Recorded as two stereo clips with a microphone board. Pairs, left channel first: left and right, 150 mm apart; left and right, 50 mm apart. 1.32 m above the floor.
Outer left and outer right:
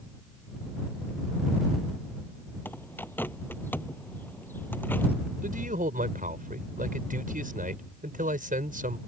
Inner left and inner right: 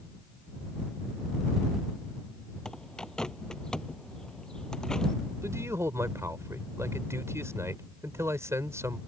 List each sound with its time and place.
2.6 s a bird: 15° left (ahead or behind)
5.4 s a man speaking: 65° right (ahead or behind)